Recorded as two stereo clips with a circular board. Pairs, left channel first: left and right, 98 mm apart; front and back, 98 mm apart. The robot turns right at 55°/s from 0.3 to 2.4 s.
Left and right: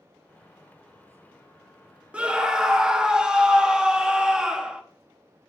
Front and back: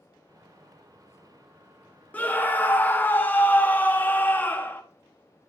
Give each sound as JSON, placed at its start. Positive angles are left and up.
{"t": 2.1, "sound": "a scream", "azimuth_deg": -35, "distance_m": 0.9}